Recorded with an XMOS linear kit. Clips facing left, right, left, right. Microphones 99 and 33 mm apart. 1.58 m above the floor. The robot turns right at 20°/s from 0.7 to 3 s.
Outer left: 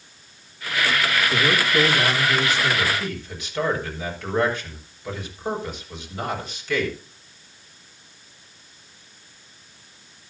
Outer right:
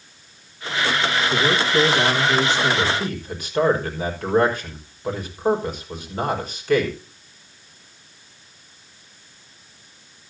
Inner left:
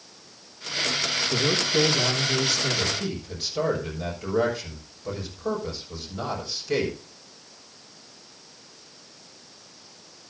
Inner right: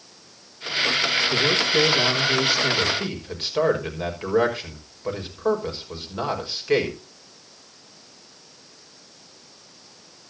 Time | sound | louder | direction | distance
1.3 | a man speaking | outer right 2 dB, inner right 3 dB | straight behind | 2.5 m
2.8 | a man speaking | outer right 3 dB, inner right 4 dB | 40° right (ahead or behind) | 5.5 m